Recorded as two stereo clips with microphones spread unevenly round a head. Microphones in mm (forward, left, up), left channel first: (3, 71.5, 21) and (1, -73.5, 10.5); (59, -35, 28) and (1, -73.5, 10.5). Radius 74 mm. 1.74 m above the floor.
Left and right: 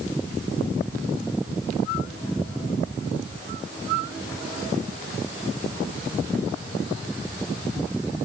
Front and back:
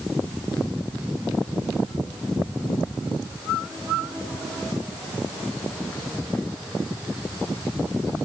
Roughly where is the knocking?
No knocking in this recording.